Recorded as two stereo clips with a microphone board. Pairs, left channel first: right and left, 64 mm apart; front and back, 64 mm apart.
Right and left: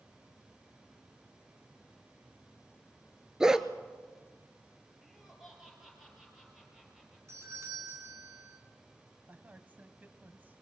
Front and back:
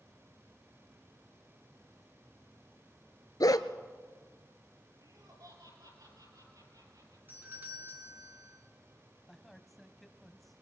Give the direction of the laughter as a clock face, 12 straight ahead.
6 o'clock.